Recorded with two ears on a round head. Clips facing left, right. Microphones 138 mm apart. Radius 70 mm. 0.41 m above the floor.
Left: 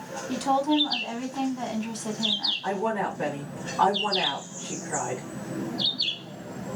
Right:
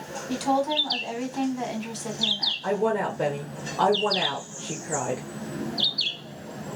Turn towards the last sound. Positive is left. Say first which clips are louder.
# right 3 dB
turn(degrees=-40)  # may be behind; listen again after turning